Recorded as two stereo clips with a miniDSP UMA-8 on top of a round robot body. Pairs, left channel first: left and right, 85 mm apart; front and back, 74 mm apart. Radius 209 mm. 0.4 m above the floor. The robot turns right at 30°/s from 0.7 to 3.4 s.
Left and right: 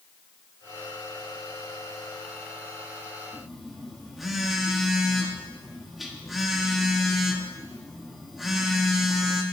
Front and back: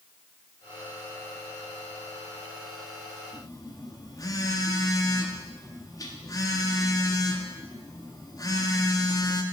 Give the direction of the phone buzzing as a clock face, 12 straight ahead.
12 o'clock.